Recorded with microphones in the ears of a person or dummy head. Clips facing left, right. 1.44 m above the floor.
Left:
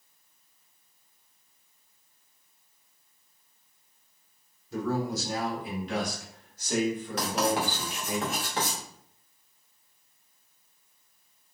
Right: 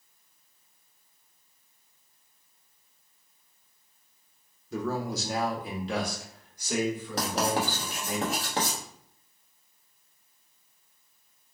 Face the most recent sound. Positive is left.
turn(degrees=-35)  # may be behind; listen again after turning